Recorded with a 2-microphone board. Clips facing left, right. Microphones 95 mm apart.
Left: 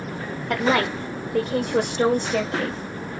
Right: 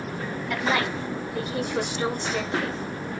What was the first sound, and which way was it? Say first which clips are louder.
A woman speaking: left 5 dB; 65° left (ahead or behind).